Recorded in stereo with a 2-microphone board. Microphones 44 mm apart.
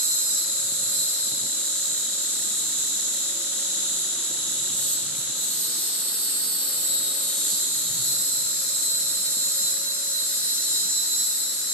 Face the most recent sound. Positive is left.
turn(degrees=10)  # may be behind; listen again after turning